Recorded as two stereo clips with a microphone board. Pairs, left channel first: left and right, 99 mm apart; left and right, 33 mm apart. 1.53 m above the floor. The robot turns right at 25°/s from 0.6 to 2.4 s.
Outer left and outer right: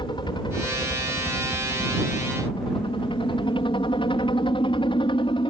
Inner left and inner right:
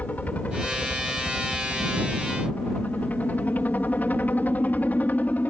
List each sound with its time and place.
0.0 s a helicopter: 65° left; by 5.5 s 110° left